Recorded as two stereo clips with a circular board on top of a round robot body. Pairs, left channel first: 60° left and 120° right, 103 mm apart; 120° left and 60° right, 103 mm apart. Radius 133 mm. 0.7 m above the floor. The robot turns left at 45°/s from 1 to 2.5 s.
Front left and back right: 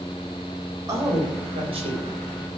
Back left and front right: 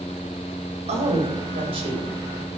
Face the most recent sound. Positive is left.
turn(degrees=-125)